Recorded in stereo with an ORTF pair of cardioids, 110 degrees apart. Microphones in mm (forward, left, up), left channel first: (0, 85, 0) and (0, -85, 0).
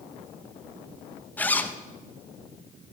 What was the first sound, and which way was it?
A zipper, 10° left.